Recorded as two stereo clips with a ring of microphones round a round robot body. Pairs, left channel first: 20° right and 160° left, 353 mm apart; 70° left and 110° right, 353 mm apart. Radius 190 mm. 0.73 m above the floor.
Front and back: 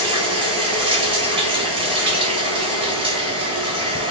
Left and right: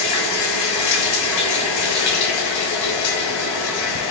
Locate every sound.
0.0 s running water: 80° left, 3.5 m